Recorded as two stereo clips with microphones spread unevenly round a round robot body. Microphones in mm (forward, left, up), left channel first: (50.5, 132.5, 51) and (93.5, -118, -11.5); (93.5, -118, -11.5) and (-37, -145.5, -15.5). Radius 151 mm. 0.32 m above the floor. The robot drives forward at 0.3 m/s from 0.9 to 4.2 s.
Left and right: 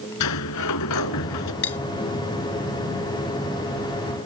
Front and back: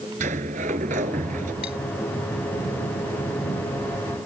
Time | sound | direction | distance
0.2 | a sliding door | 135° left | ?
1.6 | cutlery clinking | 65° left | ?